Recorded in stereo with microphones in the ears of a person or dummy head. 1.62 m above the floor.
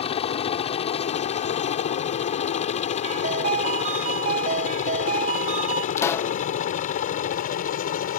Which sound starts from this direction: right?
A ringtone, at 3.0 s.